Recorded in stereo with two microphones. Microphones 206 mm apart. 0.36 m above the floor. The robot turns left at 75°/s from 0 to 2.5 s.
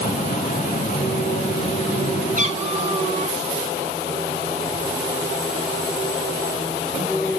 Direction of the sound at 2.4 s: 40° right (ahead or behind).